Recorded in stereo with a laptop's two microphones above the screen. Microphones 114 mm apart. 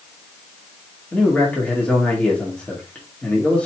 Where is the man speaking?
15° left (ahead or behind), 2.0 m.